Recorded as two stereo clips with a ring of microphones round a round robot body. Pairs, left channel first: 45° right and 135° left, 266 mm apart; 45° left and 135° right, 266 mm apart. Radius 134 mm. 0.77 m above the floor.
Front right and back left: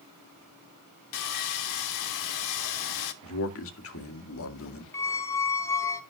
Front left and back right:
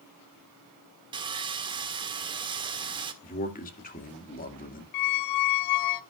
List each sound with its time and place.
1.1 s sawing: 60° right, 1.4 m
3.2 s a man speaking: 10° right, 2 m
4.9 s a squeak: 35° left, 1.0 m